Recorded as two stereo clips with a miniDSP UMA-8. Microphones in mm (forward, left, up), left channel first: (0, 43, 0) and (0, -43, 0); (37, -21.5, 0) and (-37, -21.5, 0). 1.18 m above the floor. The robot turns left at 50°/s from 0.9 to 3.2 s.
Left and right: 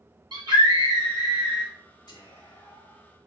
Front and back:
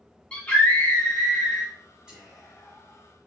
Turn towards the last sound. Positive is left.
turn(degrees=50)